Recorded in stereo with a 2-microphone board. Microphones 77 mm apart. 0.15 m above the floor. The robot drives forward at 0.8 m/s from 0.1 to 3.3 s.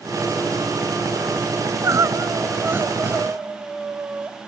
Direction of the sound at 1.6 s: 45° right (ahead or behind).